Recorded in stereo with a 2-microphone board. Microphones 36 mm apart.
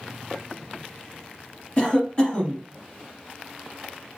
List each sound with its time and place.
1.8 s a cough: 30° left (ahead or behind), 1.5 m